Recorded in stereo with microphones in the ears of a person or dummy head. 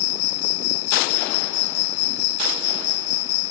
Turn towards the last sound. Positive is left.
turn(degrees=60)  # may be behind; listen again after turning